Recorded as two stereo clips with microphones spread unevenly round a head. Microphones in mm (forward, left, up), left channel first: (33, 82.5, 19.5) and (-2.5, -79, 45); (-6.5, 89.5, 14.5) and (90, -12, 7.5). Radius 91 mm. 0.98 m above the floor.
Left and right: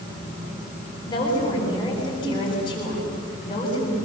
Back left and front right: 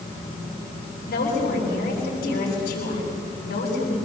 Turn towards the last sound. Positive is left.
turn(degrees=140)